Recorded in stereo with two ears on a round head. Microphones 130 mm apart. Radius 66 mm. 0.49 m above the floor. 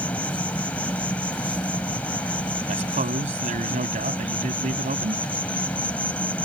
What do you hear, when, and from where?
0.0 s an insect: 10° left (ahead or behind)
2.7 s a man speaking: 55° right (ahead or behind)